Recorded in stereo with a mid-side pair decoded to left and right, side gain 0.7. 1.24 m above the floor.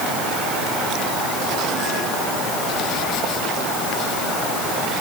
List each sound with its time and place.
Only background noise.